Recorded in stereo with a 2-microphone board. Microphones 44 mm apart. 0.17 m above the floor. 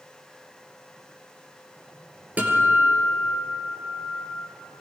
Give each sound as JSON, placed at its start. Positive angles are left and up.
{"t": 2.4, "sound": "a guitar", "side_deg": -35, "distance_m": 4.0}